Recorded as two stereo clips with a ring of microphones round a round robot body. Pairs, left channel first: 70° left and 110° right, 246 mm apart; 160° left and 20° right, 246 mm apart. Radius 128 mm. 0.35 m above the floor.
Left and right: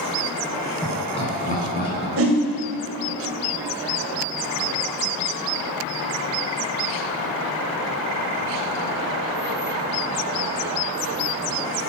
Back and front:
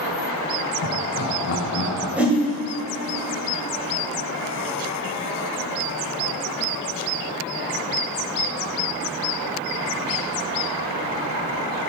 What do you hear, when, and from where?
0.8 s laughter: 145° left, 4 m; by 2.1 s 115° left, 3.5 m
2.2 s a whoosh: 105° right, 1.7 m